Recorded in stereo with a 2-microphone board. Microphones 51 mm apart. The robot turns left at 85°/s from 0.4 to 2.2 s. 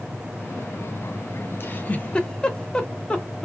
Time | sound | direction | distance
1.6 | a giggle | 45° left (ahead or behind) | 0.8 m